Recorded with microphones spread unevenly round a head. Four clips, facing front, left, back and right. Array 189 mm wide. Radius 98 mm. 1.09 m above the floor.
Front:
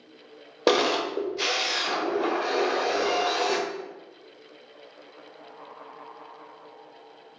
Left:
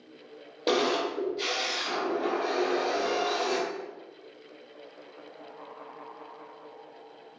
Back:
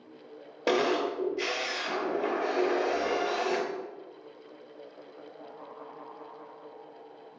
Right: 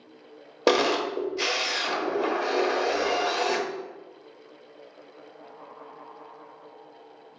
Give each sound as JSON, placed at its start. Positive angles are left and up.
{"t": 0.7, "sound": "a camera shutter", "azimuth_deg": -40, "distance_m": 0.6}